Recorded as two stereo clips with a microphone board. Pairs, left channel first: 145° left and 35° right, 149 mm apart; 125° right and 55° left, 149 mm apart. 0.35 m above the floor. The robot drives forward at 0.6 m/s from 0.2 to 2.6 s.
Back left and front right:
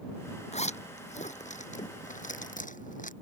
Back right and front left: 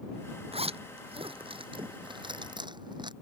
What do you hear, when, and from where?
0.5 s a zipper: 105° left; by 3.1 s 115° left